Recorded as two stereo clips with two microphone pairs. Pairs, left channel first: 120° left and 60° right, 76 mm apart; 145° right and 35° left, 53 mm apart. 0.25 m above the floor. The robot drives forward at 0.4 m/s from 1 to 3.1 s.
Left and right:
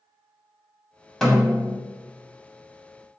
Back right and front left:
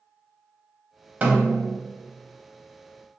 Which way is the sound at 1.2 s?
40° left.